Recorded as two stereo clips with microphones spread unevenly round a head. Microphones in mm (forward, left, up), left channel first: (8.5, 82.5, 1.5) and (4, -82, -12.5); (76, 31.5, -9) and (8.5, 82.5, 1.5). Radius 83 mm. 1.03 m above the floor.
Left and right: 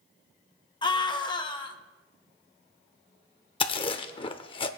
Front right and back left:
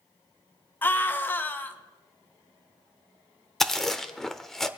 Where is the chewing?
55° left, 0.8 m.